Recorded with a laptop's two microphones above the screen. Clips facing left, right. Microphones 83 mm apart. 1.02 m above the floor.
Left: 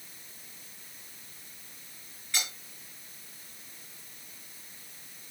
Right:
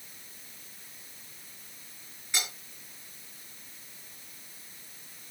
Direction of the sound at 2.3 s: 20° right (ahead or behind).